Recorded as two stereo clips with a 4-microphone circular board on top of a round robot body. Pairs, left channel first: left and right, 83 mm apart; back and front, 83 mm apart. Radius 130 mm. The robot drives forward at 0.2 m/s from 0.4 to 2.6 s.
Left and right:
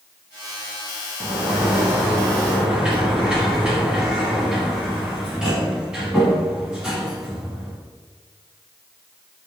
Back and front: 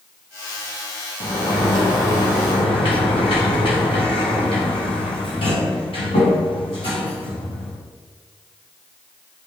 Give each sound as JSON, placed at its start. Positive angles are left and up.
{"t": 1.2, "sound": "a sliding door", "azimuth_deg": -165, "distance_m": 0.8}